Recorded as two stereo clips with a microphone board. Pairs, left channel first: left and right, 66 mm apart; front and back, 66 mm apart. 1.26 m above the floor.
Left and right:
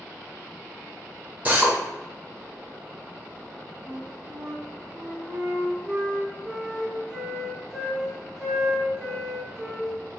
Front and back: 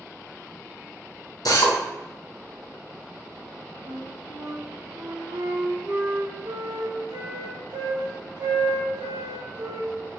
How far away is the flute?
About 0.8 m.